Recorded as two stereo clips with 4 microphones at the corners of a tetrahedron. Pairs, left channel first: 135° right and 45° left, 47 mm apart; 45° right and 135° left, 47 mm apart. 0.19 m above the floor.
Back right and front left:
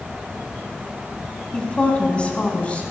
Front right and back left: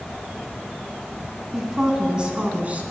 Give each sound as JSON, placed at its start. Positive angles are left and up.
{"t": 1.5, "sound": "a woman speaking", "azimuth_deg": -155, "distance_m": 1.6}